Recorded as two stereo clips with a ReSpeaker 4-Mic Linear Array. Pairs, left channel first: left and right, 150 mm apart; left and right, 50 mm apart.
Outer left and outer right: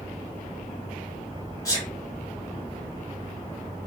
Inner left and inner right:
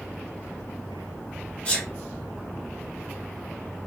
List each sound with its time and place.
1.6 s a sneeze: 25° left (ahead or behind), 1.7 m